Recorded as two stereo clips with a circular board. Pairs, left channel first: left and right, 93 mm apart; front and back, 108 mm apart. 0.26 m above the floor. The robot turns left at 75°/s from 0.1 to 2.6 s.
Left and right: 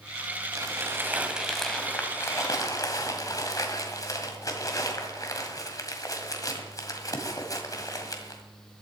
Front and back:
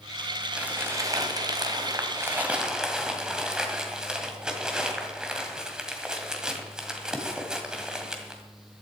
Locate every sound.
0.5 s crumpling: 105° right, 1.9 m; by 8.4 s 100° left, 1.9 m